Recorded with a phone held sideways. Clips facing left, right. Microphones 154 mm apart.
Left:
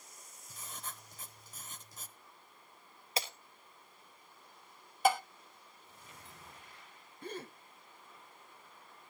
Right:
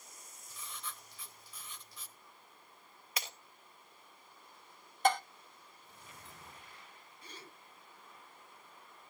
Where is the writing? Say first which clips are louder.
Even; 45° left (ahead or behind), 0.9 m.